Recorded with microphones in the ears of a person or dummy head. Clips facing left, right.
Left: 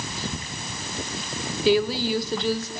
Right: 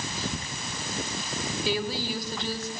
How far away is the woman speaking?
About 3.5 m.